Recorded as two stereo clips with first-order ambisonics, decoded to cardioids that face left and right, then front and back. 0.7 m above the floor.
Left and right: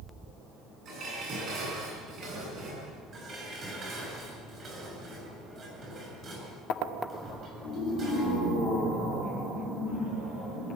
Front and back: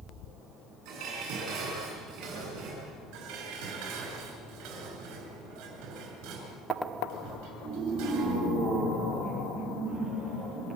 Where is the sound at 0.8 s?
145° right, 10 m.